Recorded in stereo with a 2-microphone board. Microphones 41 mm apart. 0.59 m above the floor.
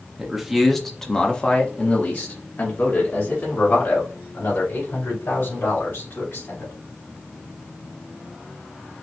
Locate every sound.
0.2 s a man speaking: 15° right (ahead or behind), 1.0 m; by 6.7 s 75° left (ahead or behind), 3 m